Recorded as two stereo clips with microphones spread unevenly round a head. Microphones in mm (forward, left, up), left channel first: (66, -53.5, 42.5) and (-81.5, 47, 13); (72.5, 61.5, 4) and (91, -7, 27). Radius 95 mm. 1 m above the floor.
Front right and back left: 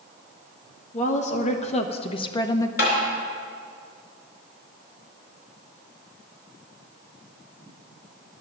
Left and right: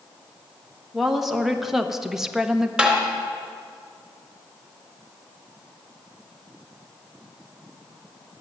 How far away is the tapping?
About 3.5 m.